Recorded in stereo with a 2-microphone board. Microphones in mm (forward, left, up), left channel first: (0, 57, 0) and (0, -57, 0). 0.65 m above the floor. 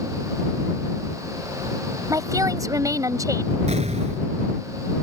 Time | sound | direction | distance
2.1 | a woman speaking | 30° right (ahead or behind) | ?
3.7 | an explosion | 80° right | ?